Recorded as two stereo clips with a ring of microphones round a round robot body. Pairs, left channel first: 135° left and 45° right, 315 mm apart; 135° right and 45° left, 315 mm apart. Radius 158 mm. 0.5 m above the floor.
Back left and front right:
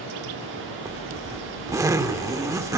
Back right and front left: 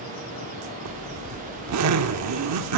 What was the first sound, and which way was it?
A zipper, 35° left.